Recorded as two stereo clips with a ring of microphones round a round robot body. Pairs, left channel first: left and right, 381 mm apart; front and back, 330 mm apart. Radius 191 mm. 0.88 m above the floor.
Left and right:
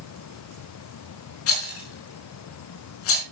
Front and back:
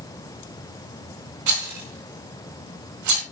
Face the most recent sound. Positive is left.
turn(degrees=145)